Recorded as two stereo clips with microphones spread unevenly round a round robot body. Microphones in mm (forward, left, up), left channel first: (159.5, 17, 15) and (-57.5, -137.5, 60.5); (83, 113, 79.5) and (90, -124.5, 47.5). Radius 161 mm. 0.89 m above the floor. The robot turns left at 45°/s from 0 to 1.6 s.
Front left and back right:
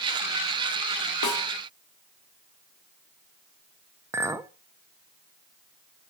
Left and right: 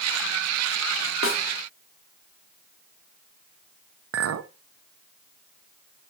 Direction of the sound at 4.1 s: 60° right.